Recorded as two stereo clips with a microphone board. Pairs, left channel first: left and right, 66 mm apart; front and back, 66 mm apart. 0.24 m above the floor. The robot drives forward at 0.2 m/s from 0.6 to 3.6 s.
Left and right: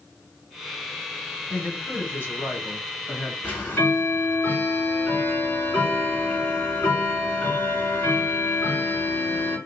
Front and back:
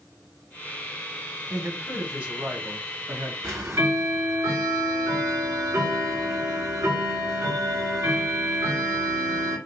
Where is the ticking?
145° left, 1.5 m.